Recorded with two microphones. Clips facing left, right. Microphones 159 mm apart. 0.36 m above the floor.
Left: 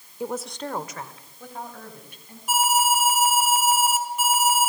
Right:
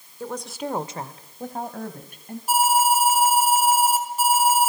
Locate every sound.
0.2 s a woman speaking: 20° left (ahead or behind), 1.0 m; by 2.4 s 50° right (ahead or behind), 3 m
2.5 s an alarm: 35° right (ahead or behind), 2.5 m